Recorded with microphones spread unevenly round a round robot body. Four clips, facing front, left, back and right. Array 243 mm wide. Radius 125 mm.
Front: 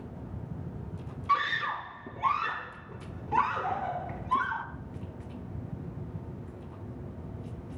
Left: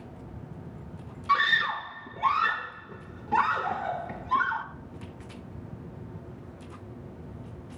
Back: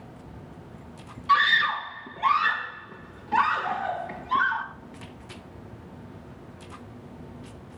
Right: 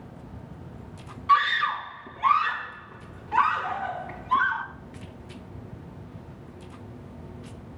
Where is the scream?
60° left, 1.3 m.